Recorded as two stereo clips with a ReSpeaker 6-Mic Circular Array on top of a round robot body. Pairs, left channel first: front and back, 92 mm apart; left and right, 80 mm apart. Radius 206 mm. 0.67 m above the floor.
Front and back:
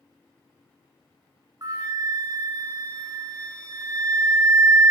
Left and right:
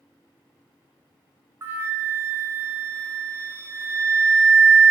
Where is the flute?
140° right, 0.7 m.